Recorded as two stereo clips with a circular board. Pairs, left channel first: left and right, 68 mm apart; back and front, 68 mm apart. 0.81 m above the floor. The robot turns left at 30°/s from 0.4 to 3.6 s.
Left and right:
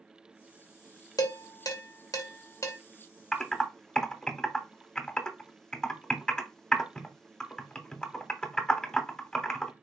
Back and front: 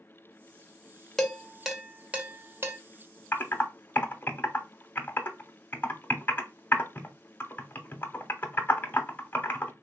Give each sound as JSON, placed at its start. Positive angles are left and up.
{"t": 1.2, "sound": "dishes clattering", "azimuth_deg": 95, "distance_m": 0.9}
{"t": 3.3, "sound": "typing on a keyboard", "azimuth_deg": 165, "distance_m": 0.7}